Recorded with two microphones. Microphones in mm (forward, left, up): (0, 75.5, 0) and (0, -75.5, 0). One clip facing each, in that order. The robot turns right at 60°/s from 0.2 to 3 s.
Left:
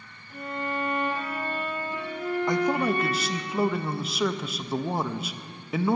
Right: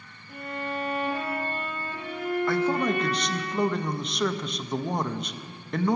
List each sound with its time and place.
0.3 s a violin: 120° right, 4.5 m; by 3.5 s 40° left, 4.5 m
2.5 s a man speaking: 15° left (ahead or behind), 0.5 m; by 6.0 s 5° left (ahead or behind), 0.5 m